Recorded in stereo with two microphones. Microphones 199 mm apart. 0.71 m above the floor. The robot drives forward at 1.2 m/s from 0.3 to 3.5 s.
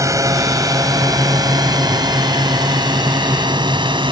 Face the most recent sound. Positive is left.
turn(degrees=-25)  # may be behind; listen again after turning